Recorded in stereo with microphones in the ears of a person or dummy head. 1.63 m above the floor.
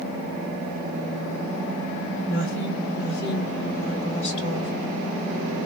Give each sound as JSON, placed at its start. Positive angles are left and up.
{"t": 2.3, "sound": "a woman speaking", "side_deg": 75, "distance_m": 2.0}